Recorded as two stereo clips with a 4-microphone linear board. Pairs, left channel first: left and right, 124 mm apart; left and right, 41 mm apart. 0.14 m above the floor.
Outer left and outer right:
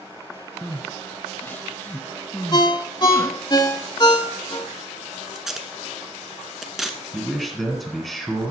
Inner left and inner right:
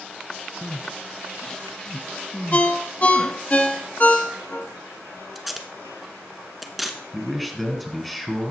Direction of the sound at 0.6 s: 15° left (ahead or behind).